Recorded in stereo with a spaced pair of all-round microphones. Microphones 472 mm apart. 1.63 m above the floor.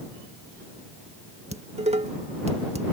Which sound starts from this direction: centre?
Dishes clattering, at 1.5 s.